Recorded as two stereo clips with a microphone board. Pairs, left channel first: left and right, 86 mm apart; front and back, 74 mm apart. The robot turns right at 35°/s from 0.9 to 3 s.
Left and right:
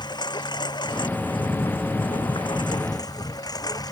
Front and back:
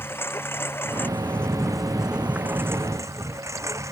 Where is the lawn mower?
60° left; by 3.9 s 130° left.